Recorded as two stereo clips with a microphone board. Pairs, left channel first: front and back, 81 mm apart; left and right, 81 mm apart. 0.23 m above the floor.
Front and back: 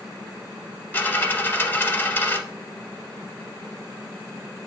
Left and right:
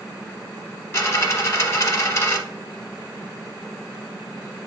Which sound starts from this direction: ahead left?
A dropped coin, at 0.9 s.